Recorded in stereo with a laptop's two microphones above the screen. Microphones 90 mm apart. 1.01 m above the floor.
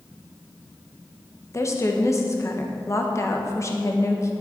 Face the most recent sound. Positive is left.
turn(degrees=35)  # may be behind; listen again after turning